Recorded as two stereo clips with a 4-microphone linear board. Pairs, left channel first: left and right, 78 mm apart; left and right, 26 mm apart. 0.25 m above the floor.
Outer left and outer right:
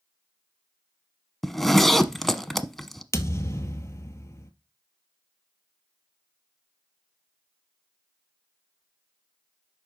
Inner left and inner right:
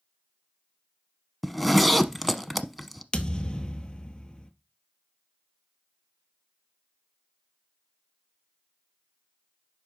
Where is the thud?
35° left (ahead or behind), 1.1 m.